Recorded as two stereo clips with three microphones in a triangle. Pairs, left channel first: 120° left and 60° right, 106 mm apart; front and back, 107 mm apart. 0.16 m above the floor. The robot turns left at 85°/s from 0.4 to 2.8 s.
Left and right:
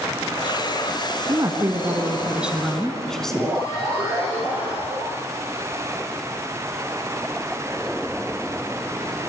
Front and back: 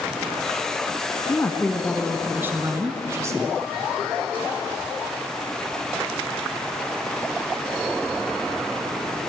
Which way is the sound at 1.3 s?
30° right.